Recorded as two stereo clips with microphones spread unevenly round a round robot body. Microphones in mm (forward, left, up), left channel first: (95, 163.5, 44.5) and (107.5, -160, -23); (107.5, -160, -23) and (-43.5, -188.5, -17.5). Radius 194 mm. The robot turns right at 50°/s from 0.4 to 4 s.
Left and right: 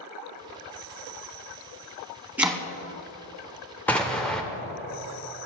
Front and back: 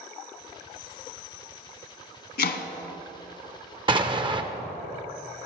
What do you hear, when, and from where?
2.4 s chopping: 5° right, 1.2 m; by 2.6 s 10° left, 1.2 m
3.9 s an explosion: 165° right, 0.8 m; by 4.4 s 160° right, 0.8 m